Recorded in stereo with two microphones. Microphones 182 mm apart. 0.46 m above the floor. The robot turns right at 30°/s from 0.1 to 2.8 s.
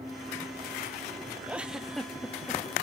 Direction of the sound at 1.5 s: 15° right.